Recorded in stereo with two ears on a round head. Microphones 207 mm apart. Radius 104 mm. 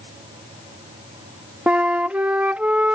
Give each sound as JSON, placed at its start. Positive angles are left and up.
{"t": 1.7, "sound": "a flute", "side_deg": -5}